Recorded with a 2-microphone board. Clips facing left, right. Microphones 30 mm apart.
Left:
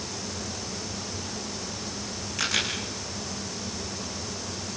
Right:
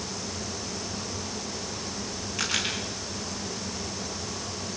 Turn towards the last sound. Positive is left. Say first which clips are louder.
# left 2 dB
turn(degrees=0)  # may be behind; listen again after turning